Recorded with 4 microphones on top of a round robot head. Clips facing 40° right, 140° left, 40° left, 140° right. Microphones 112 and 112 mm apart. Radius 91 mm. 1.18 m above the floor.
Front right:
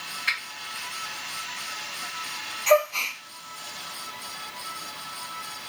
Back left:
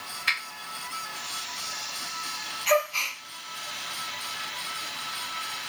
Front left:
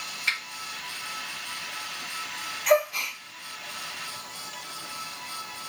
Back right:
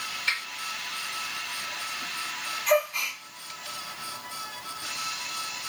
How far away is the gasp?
About 0.5 m.